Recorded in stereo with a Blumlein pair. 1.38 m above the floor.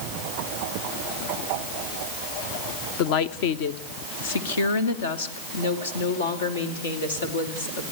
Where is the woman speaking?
40° left, 0.9 m; by 7.8 s 75° left, 3.5 m.